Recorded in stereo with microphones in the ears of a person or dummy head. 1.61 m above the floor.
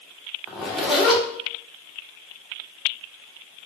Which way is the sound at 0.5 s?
5° left (ahead or behind).